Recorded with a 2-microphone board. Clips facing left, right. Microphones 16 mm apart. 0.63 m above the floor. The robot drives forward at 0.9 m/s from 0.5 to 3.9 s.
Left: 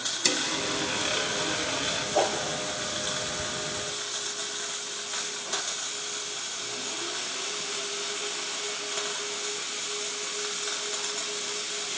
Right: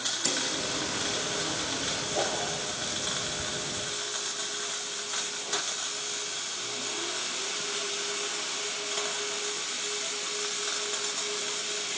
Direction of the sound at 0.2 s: 60° left (ahead or behind).